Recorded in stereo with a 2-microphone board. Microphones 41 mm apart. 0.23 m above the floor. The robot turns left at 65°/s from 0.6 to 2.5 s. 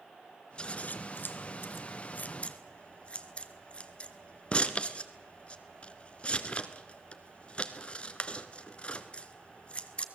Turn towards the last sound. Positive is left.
turn(degrees=30)  # may be behind; listen again after turning